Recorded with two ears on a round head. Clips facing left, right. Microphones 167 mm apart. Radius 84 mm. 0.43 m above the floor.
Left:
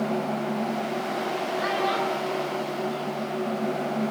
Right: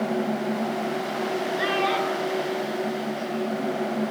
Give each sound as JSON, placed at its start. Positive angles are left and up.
{"t": 1.6, "sound": "a child speaking", "side_deg": -80, "distance_m": 8.5}